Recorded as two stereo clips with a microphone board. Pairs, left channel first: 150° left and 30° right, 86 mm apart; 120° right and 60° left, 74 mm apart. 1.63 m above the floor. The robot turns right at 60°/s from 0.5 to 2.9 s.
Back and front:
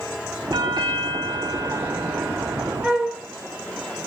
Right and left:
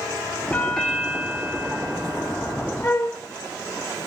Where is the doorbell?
55° right, 0.9 m; by 2.7 s 80° left, 0.9 m.